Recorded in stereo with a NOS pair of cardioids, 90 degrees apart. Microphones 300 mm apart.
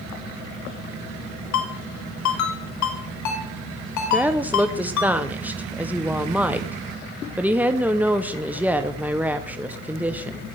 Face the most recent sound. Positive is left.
turn(degrees=-5)